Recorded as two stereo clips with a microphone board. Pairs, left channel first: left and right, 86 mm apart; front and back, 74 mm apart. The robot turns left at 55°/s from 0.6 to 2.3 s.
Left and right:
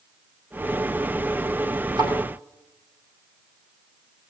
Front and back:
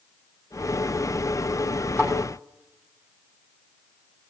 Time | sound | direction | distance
2.0 | a thud | 65° right | 6 m